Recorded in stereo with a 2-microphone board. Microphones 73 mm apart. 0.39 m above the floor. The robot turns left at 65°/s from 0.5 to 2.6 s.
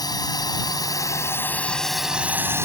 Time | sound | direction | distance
0.0 | a drone | 65° left (ahead or behind) | ?